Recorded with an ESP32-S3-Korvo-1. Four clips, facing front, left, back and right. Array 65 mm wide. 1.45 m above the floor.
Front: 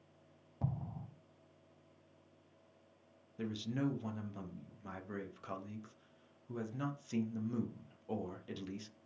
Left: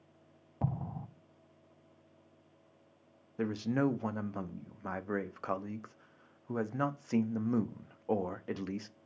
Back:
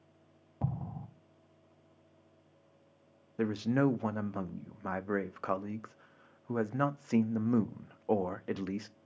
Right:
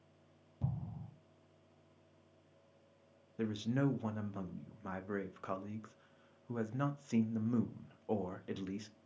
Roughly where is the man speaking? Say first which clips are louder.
Left 4 dB, back 9 dB; behind left.